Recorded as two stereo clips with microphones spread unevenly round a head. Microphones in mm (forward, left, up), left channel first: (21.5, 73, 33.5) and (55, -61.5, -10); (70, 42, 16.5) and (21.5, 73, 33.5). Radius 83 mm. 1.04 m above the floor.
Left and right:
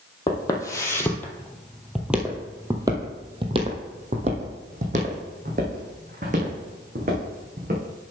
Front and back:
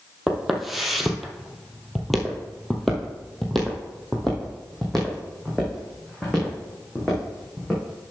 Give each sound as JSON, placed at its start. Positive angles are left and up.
{"t": 0.3, "sound": "footsteps", "azimuth_deg": 80, "distance_m": 1.4}